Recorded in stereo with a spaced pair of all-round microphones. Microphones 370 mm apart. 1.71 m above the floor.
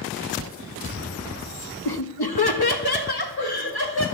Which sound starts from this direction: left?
Laughter, at 1.9 s.